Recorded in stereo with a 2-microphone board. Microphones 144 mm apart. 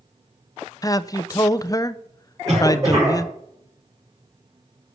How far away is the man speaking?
About 0.6 m.